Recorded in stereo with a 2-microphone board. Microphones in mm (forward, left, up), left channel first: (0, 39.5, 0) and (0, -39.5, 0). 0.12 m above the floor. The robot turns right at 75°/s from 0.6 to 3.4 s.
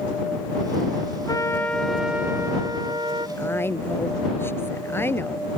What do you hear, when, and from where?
1.3 s a trumpet: 130° left; by 3.3 s 80° right
3.4 s a woman speaking: 30° left (ahead or behind)